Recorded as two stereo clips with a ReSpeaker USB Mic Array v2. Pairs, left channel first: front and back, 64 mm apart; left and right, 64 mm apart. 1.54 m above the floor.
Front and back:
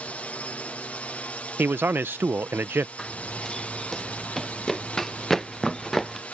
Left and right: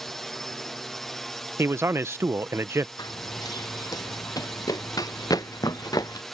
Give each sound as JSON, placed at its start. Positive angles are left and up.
{"t": 0.0, "sound": "a drone", "azimuth_deg": 15}
{"t": 1.6, "sound": "a man speaking", "azimuth_deg": -130}
{"t": 3.0, "sound": "running footsteps", "azimuth_deg": 85}